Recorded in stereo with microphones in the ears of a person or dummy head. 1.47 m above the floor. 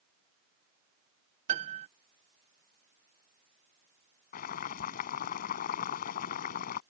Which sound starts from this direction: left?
Boiling, at 4.3 s.